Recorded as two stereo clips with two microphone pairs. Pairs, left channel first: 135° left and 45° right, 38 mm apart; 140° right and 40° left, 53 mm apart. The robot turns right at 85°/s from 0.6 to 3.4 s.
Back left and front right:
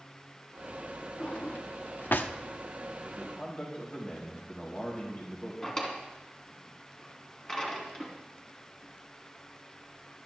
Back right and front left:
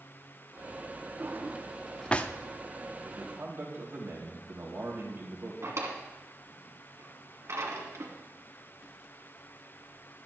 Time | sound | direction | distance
1.2 | a drawer | 75° left | 0.6 m
3.0 | a man speaking | 50° left | 3 m
5.6 | a drawer | 65° left | 2.5 m